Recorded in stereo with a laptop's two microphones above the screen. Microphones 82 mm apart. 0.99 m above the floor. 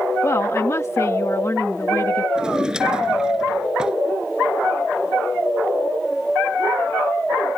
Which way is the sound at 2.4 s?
10° right (ahead or behind).